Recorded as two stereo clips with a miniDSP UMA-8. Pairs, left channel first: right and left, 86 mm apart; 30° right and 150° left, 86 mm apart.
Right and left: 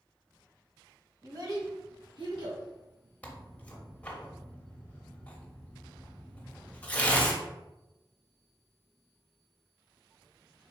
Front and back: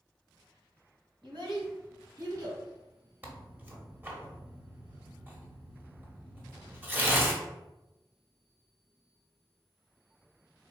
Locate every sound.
1.2 s a child speaking: 135° left, 1.6 m; by 2.6 s 100° left, 2.5 m
3.2 s tearing paper: 155° right, 0.9 m